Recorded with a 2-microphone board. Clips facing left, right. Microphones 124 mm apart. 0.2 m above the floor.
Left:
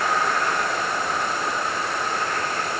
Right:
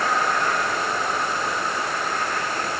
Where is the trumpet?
I don't hear a trumpet.